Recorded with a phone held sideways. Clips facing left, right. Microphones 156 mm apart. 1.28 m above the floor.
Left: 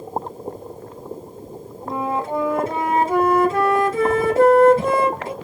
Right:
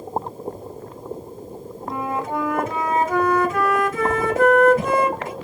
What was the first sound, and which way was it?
A flute, 30° left (ahead or behind).